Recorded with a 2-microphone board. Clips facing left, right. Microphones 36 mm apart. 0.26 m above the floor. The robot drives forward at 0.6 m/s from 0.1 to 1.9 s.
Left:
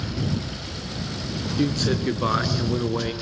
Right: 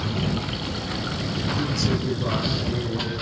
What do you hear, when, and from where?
0.0 s running water: 50° right (ahead or behind), 2.5 m; by 3.2 s 40° right (ahead or behind), 3 m
1.6 s a man speaking: 50° left (ahead or behind), 4 m